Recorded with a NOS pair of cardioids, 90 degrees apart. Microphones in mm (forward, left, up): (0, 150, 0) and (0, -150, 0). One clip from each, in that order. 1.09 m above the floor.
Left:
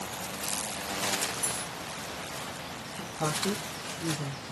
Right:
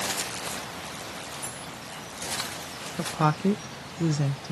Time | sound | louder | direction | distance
1.4 | cutlery clinking | left 4 dB | 40° left | 0.9 m
3.0 | a woman speaking | right 6 dB | 60° right | 0.6 m